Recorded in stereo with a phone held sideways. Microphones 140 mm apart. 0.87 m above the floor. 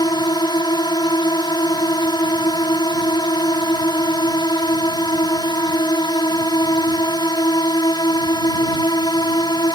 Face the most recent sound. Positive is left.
turn(degrees=30)  # may be behind; listen again after turning